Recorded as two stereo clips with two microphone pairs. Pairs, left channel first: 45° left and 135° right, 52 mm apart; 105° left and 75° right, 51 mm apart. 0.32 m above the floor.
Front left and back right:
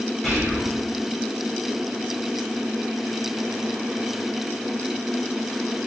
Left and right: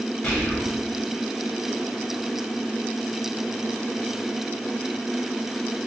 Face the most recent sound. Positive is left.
turn(degrees=120)